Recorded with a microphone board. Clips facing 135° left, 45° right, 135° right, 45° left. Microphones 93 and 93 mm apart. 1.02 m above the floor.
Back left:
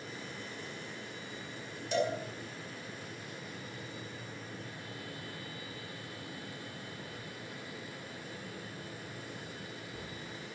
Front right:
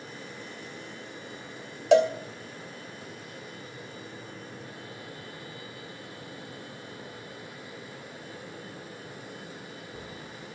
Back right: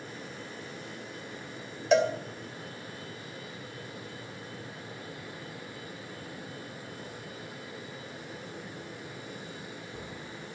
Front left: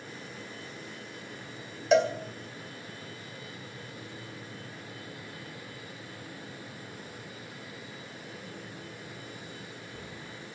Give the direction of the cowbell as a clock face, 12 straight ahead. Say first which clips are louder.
Front right 12 dB, front left 1 dB; 1 o'clock.